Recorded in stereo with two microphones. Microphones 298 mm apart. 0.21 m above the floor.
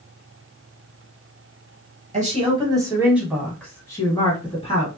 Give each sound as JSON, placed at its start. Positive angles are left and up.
{"t": 2.1, "sound": "a woman speaking", "side_deg": -25, "distance_m": 1.2}